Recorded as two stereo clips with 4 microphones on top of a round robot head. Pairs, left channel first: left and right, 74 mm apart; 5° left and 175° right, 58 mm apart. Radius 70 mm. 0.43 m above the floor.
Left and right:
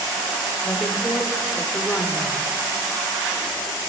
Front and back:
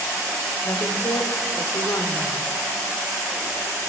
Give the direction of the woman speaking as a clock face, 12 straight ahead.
11 o'clock.